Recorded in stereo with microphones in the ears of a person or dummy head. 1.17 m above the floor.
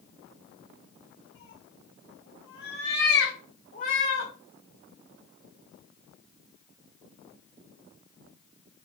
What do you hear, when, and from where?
1.4 s a cat meowing: 55° left (ahead or behind), 1.7 m; by 4.3 s 35° left (ahead or behind), 1.6 m